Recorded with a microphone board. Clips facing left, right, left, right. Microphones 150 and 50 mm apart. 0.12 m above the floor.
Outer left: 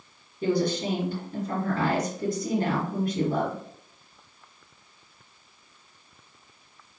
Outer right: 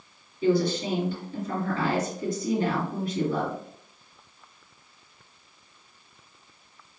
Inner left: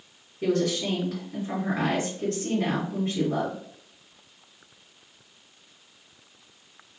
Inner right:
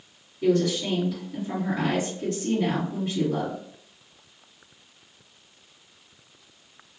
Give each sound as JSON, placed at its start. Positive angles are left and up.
{"t": 0.4, "sound": "a woman speaking", "side_deg": 45, "distance_m": 1.9}